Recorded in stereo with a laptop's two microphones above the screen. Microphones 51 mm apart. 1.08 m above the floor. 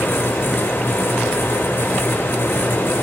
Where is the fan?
55° left (ahead or behind), 2.5 m.